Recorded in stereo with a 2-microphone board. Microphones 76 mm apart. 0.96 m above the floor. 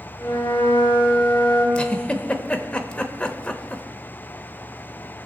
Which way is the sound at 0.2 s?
40° left (ahead or behind).